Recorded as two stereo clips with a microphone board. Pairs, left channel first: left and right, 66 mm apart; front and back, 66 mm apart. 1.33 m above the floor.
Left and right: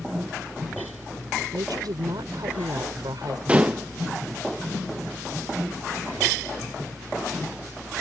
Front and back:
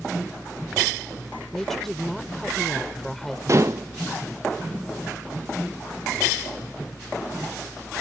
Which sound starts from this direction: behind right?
Dishes clattering, at 3.5 s.